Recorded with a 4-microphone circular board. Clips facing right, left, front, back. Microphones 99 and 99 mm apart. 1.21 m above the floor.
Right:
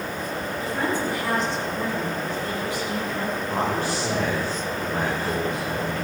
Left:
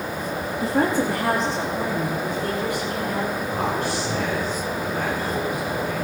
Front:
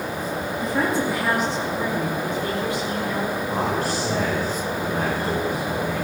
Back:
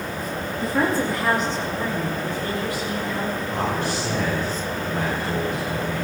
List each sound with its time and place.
0.6 s a woman speaking: 100° left, 2.5 m; by 3.4 s 60° left, 5 m
3.5 s a man speaking: 40° right, 5.5 m